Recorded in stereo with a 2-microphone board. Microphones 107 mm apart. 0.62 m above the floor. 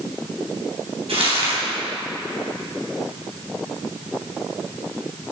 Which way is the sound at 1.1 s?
70° right (ahead or behind).